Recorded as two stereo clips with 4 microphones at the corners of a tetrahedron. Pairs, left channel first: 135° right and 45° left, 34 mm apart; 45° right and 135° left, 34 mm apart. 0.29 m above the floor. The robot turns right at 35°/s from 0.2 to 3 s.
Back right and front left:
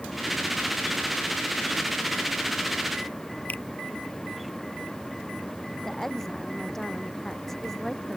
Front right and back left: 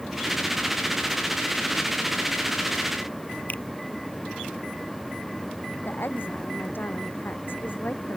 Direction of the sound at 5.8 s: 50° right.